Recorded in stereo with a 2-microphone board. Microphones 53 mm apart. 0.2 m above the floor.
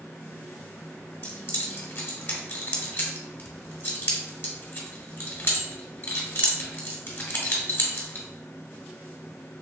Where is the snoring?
No snoring in this recording.